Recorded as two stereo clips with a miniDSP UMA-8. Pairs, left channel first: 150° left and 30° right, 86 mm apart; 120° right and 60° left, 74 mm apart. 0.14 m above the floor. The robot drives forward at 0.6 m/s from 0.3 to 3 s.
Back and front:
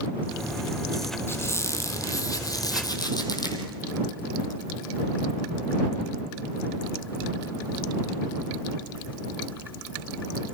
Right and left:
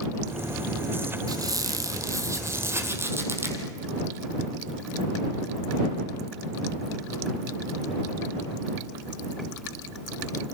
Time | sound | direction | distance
1.3 | a squeak | 90° left | 2 m